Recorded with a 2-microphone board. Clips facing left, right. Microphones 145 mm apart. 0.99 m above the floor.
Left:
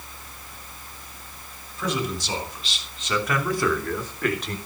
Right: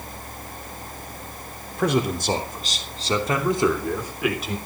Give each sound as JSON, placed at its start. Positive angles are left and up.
{"t": 1.8, "sound": "a man speaking", "side_deg": -60, "distance_m": 3.0}